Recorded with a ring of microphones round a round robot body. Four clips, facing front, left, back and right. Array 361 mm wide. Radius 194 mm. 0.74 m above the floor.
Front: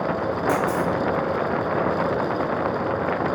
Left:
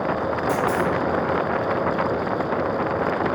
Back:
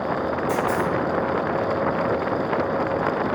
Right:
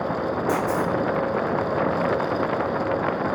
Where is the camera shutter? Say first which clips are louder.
Left 2 dB, front 1 dB; 10° left, 1.1 m.